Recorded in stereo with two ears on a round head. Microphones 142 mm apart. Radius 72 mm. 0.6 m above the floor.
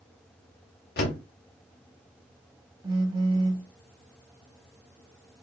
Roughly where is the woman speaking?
No woman speaking in this recording.